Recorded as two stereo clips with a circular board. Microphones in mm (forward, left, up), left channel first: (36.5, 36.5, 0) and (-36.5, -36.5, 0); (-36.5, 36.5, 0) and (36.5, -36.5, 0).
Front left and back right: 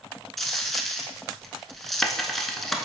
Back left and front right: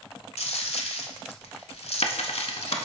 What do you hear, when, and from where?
0.4 s a dropped coin: 130° left, 0.5 m